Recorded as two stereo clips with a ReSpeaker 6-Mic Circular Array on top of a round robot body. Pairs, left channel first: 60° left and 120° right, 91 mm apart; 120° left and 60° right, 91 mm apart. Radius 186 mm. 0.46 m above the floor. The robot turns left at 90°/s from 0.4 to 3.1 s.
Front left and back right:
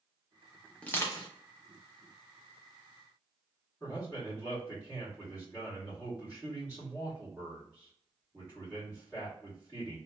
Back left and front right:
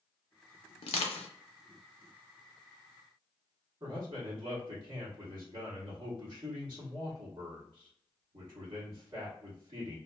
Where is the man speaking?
40° right, 1.9 m.